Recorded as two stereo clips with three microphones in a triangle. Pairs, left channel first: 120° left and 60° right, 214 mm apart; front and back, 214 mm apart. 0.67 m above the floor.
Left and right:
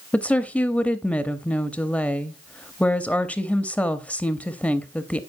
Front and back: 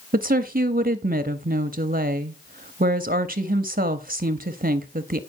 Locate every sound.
0.1 s a woman speaking: 160° right, 0.7 m